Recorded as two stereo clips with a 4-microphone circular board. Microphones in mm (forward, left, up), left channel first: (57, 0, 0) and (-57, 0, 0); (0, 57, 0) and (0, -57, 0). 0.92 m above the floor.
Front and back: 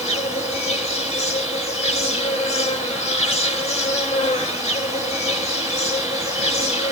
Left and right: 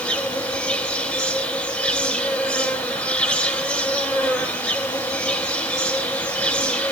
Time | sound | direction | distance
0.0 | an insect | 15° left | 1.5 m